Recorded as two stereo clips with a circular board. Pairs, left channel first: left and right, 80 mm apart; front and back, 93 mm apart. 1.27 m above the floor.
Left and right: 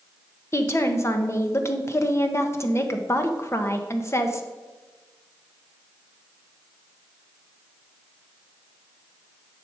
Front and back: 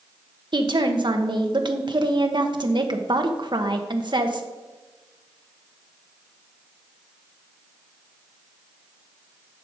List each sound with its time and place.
0.5 s a woman speaking: 145° left, 1.1 m